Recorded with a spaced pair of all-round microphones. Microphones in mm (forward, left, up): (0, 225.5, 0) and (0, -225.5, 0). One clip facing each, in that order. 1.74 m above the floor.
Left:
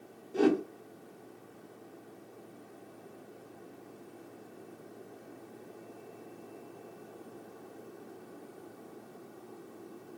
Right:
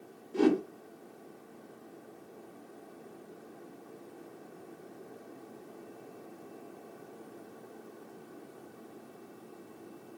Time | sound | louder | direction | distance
0.3 | a whoosh | even | 15° right (ahead or behind) | 0.7 m